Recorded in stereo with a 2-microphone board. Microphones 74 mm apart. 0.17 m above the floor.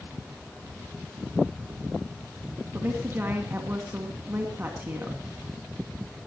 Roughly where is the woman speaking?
Right.